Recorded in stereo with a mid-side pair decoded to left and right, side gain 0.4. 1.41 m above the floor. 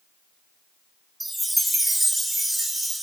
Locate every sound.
1.2 s a chime: 20° right, 0.8 m